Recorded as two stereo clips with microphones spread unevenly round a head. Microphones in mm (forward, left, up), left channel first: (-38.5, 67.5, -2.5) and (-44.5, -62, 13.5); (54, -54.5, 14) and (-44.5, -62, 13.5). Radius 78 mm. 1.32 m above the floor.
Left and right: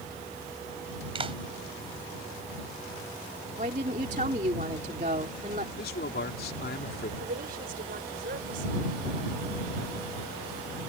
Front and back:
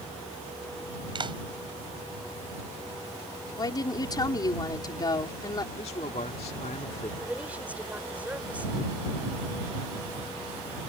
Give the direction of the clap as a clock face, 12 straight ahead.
5 o'clock.